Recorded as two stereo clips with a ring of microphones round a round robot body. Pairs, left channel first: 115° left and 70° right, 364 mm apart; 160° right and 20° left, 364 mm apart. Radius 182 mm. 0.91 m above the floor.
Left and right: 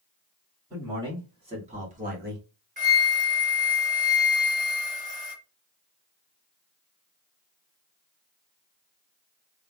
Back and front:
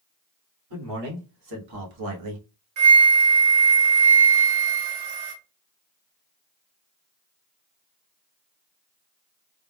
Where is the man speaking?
10° left, 2 m; by 2.5 s 10° right, 0.8 m.